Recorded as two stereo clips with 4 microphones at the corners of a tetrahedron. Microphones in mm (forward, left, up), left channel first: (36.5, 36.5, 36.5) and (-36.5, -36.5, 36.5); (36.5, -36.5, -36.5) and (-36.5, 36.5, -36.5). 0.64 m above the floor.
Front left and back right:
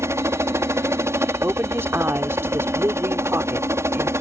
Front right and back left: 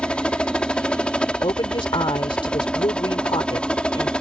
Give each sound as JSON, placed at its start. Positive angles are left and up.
{"t": 0.0, "sound": "a helicopter", "azimuth_deg": -115}
{"t": 1.4, "sound": "a woman speaking", "azimuth_deg": -70}